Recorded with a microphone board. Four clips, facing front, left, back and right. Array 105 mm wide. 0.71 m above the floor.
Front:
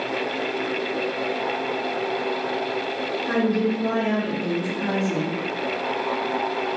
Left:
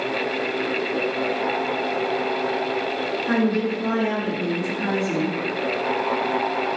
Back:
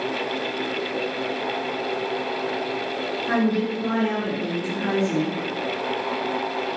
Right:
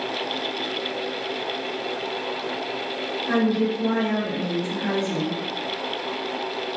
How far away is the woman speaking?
About 1.9 m.